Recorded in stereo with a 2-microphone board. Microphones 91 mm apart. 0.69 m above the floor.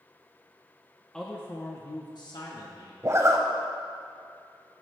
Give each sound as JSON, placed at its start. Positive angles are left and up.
{"t": 1.1, "sound": "a man speaking", "side_deg": 5, "distance_m": 0.7}
{"t": 3.0, "sound": "a zipper", "side_deg": -35, "distance_m": 0.8}